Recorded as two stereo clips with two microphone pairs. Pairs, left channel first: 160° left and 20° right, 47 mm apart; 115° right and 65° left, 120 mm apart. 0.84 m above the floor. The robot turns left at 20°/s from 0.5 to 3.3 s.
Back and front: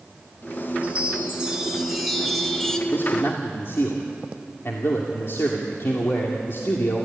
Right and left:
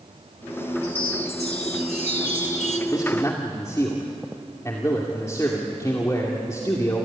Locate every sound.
0.8 s a chime: 75° right, 2 m; by 2.8 s 115° right, 2 m
2.9 s a man speaking: 170° right, 2.5 m; by 7.1 s 175° right, 2.5 m